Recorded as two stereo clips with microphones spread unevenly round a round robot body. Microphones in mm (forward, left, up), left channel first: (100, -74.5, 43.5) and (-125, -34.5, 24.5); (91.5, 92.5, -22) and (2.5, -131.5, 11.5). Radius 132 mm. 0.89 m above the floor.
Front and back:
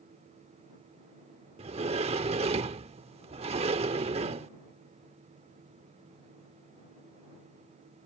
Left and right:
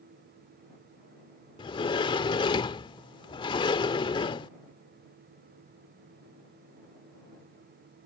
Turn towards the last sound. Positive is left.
turn(degrees=130)